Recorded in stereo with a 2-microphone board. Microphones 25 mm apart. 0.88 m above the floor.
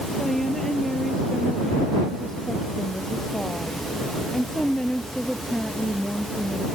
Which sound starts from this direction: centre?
A woman speaking, at 0.2 s.